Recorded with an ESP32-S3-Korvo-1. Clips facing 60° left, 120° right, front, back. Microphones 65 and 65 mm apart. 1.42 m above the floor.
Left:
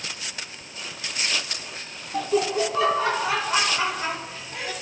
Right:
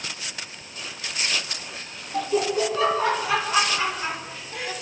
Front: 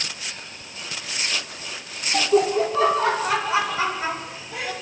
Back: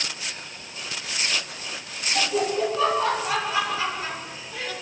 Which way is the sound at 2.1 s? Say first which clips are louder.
Even, front 5 dB; 5° right.